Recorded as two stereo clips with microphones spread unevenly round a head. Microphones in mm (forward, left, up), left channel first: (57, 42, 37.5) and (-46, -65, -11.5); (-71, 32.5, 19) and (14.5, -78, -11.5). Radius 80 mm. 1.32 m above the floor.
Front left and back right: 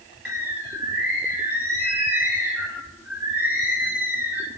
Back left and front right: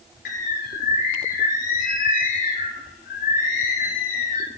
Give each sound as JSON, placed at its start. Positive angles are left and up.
{"t": 0.2, "sound": "a bird", "azimuth_deg": 135, "distance_m": 4.0}